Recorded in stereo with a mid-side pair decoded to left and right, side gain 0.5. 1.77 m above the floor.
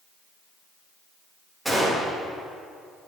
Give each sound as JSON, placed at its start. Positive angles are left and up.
{"t": 1.6, "sound": "a gunshot", "azimuth_deg": -10, "distance_m": 7.0}